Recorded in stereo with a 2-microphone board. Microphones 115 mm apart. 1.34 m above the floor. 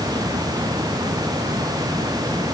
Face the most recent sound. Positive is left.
No sound to turn to.